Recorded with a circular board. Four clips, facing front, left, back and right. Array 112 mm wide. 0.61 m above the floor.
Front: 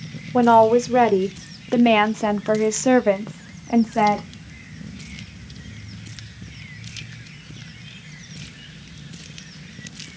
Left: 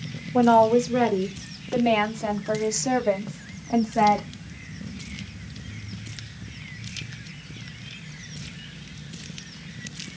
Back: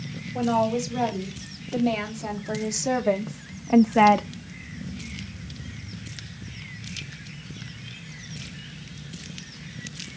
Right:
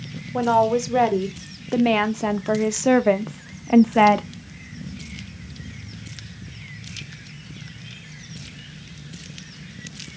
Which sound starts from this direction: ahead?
A woman speaking, at 0.3 s.